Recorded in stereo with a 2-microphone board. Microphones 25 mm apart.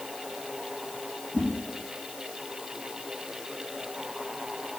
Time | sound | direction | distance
1.3 | a whoosh | 50° right (ahead or behind) | 4.5 m